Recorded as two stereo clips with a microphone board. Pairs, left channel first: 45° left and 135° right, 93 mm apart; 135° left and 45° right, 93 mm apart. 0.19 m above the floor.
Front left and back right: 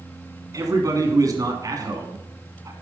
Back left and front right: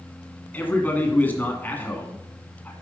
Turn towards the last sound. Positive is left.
turn(degrees=-160)